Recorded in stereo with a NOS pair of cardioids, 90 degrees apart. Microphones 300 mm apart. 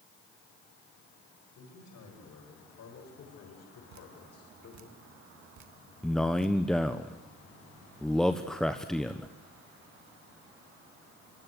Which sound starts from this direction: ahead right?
Dripping, at 3.9 s.